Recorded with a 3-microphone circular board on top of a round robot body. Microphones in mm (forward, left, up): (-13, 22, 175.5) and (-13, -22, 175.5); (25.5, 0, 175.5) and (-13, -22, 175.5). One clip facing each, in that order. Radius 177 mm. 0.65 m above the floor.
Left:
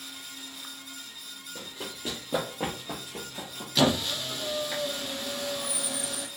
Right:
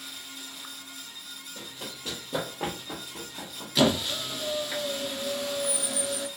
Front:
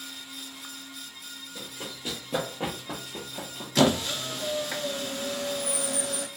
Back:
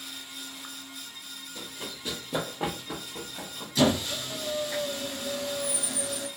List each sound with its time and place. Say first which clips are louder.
1.6 s running footsteps: left 2 dB, even; 105° left, 1.3 m; by 4.4 s straight ahead, 0.9 m
3.8 s a squeak: right 1 dB, front 2 dB; straight ahead, 0.6 m